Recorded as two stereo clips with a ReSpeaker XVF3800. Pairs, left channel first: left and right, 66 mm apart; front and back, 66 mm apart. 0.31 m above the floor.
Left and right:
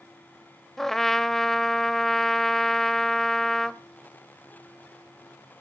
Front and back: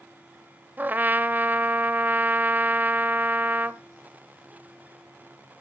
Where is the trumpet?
165° left, 0.6 m.